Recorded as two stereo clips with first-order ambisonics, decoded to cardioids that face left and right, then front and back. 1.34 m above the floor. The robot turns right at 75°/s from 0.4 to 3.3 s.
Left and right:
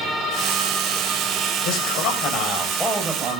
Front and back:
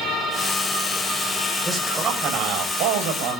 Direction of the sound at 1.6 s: 85° left.